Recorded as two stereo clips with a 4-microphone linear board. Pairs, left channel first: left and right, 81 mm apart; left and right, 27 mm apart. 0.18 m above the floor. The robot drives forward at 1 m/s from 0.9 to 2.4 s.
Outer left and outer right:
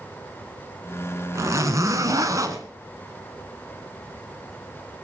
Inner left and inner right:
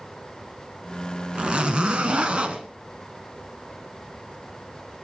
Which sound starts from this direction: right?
A zipper, at 1.4 s.